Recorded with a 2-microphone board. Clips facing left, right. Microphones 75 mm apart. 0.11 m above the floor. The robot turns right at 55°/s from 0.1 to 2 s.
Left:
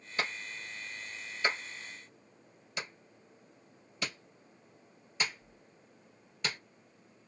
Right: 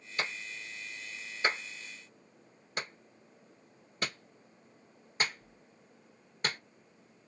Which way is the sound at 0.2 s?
25° left (ahead or behind).